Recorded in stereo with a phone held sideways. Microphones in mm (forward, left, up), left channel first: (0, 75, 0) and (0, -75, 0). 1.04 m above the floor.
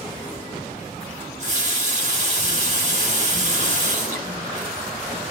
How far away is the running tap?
About 1.7 m.